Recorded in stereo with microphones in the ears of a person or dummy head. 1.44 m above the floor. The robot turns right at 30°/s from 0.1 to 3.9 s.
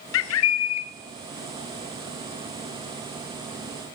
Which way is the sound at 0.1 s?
65° left (ahead or behind).